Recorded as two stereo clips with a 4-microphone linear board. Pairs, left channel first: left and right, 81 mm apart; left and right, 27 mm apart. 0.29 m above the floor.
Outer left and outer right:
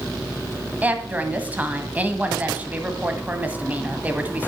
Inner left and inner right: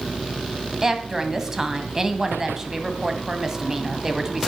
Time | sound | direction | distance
0.8 | a woman speaking | 20° right (ahead or behind) | 1.5 m